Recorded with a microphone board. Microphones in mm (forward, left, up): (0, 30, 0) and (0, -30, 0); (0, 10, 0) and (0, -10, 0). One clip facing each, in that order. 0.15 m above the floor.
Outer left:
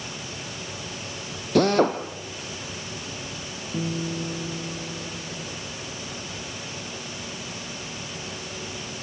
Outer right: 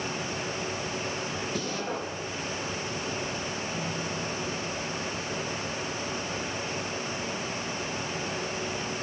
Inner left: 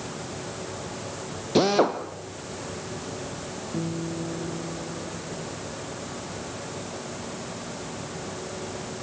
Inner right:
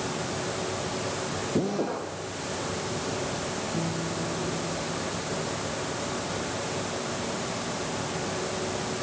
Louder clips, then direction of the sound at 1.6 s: Outer left 17 dB, inner left 9 dB; 80° left.